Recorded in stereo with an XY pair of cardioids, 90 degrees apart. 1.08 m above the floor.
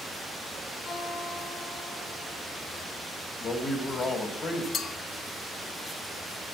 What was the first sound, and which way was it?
A guitar, 60° left.